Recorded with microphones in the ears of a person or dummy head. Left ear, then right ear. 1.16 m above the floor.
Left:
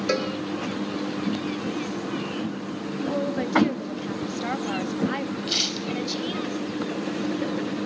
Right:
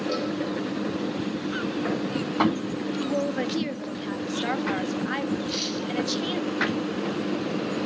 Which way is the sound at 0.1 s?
65° left (ahead or behind).